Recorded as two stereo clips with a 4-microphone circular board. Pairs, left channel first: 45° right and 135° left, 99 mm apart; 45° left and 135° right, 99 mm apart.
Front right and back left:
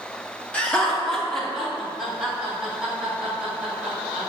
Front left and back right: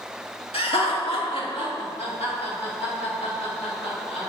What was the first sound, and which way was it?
Laughter, 35° left.